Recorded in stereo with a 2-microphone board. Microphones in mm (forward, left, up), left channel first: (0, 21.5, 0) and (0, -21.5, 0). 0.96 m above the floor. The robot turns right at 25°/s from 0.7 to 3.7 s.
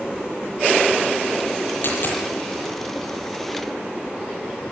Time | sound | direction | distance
1.8 | a dropped coin | 55° left (ahead or behind) | 9 m